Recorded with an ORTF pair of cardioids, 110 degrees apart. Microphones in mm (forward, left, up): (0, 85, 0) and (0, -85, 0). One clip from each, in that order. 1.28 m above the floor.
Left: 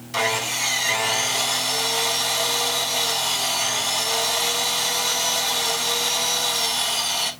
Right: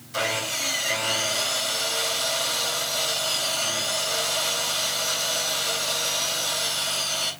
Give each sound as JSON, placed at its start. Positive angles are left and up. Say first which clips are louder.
{"t": 0.1, "sound": "sawing", "louder": "left 3 dB", "azimuth_deg": 60, "distance_m": 6.5}